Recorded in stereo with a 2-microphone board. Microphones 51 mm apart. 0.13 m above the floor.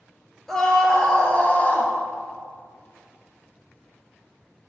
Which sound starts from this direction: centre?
A scream, at 0.5 s.